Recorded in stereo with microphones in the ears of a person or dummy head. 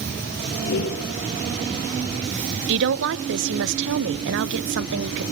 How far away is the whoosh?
About 6 m.